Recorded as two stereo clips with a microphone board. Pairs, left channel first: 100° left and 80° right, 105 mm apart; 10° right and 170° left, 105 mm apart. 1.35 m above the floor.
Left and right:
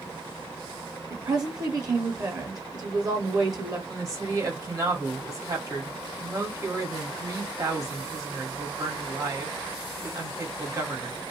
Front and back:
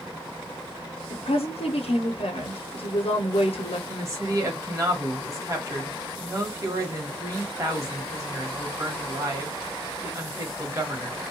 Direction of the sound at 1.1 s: 25° right.